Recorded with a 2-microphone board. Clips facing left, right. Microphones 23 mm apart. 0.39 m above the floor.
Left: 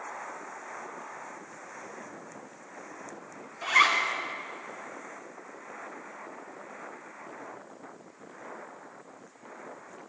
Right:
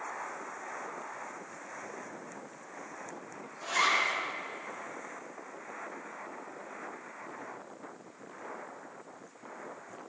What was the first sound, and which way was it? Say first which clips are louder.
A zipper: left 5 dB; 75° left (ahead or behind).